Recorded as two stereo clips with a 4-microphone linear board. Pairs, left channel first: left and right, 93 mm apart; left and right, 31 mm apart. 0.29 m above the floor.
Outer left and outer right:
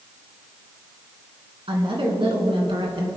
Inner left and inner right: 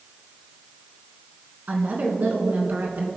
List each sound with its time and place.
1.7 s a woman speaking: 70° right (ahead or behind), 3 m